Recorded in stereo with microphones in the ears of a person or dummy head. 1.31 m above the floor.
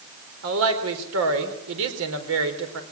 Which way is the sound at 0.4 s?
80° right.